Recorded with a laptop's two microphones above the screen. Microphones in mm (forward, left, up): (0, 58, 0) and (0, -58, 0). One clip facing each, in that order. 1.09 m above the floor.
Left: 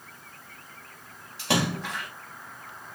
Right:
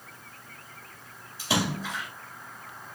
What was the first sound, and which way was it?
A splash, 75° left (ahead or behind).